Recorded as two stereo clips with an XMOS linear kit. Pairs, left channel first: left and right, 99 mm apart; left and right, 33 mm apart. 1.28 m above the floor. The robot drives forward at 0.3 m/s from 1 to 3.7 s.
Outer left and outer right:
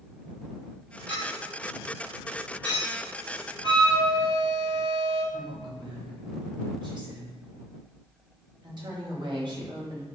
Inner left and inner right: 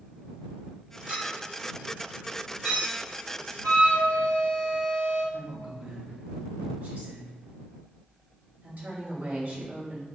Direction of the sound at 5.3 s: 50° right (ahead or behind).